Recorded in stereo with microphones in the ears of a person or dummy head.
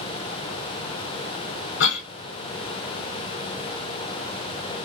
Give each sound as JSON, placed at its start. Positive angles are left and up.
{"t": 1.8, "sound": "a cough", "side_deg": 70, "distance_m": 1.0}